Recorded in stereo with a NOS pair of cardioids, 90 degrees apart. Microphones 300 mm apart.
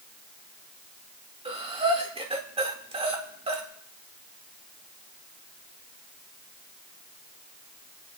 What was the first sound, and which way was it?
Breathing, 20° right.